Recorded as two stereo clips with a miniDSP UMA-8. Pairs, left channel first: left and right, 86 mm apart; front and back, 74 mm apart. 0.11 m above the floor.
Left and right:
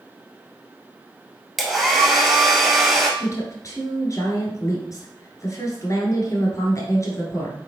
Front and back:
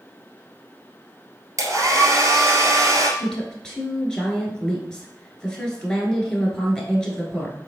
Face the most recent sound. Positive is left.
turn(degrees=75)